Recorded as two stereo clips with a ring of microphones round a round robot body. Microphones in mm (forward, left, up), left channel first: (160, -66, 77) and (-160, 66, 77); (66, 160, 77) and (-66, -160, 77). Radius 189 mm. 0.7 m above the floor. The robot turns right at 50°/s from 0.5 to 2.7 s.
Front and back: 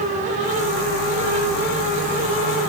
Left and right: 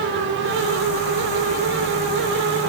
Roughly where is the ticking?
I don't hear ticking.